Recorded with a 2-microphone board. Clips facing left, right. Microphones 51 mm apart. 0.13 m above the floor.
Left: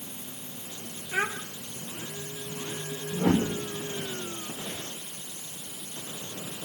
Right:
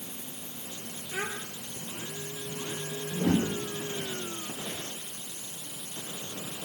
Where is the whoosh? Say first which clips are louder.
Left 2 dB; 75° left (ahead or behind), 5 m.